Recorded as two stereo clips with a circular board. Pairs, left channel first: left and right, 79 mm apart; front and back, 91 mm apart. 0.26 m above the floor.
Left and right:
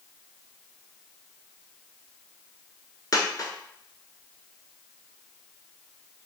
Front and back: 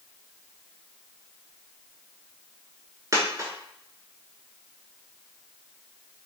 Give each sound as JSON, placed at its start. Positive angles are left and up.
{"t": 3.1, "sound": "a dropped coin", "azimuth_deg": 130, "distance_m": 0.8}